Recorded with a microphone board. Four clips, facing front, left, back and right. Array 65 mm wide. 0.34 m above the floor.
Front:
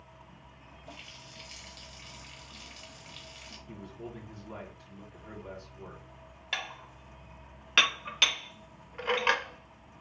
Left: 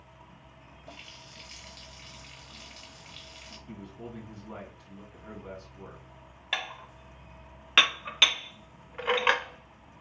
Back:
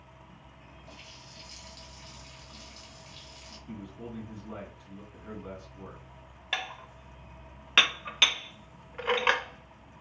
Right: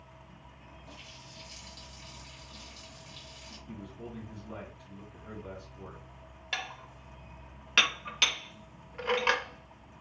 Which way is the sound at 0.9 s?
60° left.